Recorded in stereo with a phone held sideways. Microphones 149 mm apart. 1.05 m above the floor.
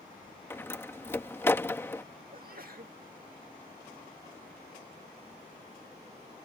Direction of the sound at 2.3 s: 65° right (ahead or behind).